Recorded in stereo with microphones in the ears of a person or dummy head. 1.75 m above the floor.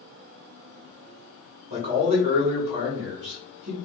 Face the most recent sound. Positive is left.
turn(degrees=-30)  # may be behind; listen again after turning